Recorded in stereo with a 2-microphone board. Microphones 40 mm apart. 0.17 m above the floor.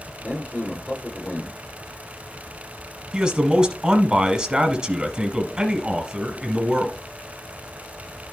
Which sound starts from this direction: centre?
A man speaking, at 3.1 s.